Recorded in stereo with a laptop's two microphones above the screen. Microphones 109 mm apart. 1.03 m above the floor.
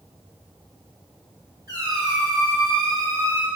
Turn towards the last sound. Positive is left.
turn(degrees=-40)  # may be behind; listen again after turning